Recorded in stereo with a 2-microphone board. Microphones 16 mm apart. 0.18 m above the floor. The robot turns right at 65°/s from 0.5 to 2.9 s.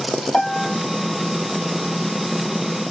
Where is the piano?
80° left, 2 m; by 0.8 s 70° left (ahead or behind), 2 m.